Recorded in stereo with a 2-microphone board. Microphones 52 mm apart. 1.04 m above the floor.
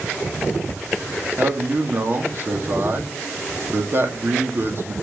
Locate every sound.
1.4 s a man speaking: 45° right (ahead or behind), 2.5 m